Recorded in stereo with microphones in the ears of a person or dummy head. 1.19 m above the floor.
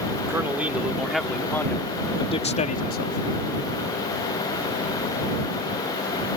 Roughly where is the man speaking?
Centre.